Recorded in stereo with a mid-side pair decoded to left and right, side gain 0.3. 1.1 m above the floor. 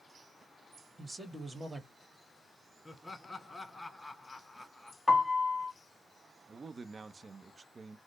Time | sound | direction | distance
1.0 | a man speaking | 25° right | 1.7 m
2.9 | laughter | 25° left | 1.3 m
5.1 | a piano | 25° left | 1.2 m
6.5 | a man speaking | 45° right | 0.6 m